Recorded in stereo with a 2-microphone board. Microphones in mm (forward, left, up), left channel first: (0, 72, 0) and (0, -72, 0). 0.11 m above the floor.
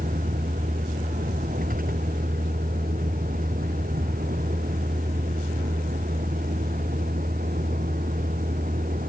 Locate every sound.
0.0 s a vehicle: 80° right